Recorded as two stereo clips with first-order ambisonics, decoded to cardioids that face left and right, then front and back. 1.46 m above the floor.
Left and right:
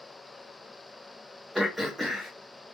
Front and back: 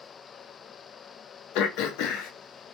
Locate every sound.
1.6 s throat clearing: 5° right, 0.6 m